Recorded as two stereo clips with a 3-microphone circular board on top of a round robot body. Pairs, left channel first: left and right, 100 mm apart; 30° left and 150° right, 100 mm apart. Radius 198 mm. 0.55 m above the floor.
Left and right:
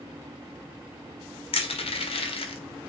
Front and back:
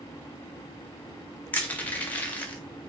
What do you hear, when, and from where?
1.5 s crushing: 105° left, 1.0 m